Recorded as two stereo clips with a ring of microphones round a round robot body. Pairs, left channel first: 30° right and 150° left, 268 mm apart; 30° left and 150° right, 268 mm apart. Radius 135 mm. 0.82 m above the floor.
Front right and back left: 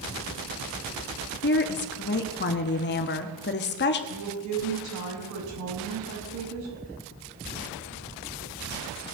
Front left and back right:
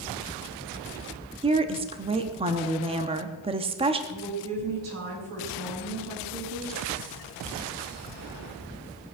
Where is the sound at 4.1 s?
175° left, 7.5 m.